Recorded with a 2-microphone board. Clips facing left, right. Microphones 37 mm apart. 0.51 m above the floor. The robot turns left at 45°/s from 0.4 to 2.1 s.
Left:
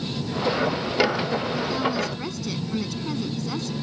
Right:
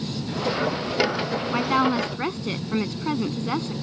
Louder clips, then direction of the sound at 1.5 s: Right 3 dB; 60° right (ahead or behind).